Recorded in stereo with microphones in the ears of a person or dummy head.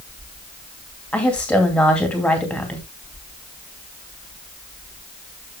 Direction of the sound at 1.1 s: 5° left (ahead or behind).